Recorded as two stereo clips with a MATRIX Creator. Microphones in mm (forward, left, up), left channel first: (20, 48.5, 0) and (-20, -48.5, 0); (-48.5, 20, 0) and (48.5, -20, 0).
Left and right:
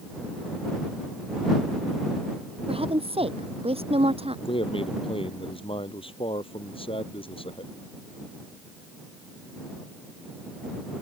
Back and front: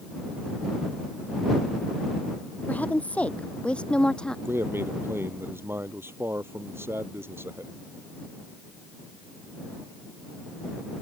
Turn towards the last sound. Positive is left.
turn(degrees=45)